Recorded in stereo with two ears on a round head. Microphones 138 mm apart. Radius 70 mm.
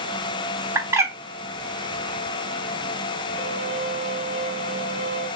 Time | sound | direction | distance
0.8 | a bird | 20° right (ahead or behind) | 0.8 m
3.4 | a violin | 5° left (ahead or behind) | 1.3 m